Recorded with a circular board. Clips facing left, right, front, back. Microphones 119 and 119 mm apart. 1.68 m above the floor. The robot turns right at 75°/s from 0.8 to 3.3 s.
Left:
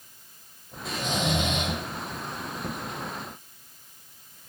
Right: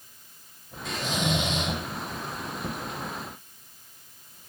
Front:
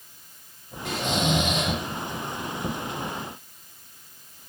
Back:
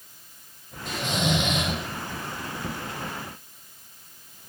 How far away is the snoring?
About 3 m.